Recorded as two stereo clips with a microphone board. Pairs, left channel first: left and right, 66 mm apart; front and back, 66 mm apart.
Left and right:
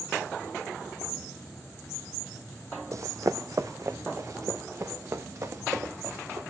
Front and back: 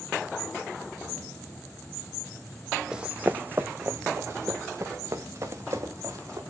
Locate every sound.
2.9 s running footsteps: 105° right, 0.6 m; by 6.4 s 135° right, 3.5 m